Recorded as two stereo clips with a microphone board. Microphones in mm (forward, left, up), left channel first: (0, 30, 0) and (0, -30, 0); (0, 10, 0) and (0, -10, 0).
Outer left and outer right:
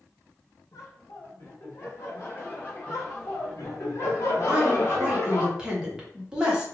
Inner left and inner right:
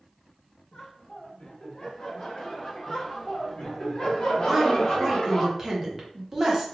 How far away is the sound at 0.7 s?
About 1.4 m.